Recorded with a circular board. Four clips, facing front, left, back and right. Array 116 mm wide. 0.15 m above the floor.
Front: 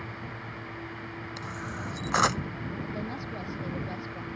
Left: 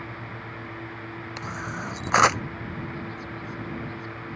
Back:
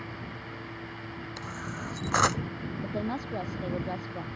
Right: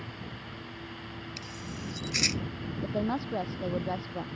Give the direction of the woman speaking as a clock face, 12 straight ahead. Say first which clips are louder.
Right 5 dB, back 3 dB; 4 o'clock.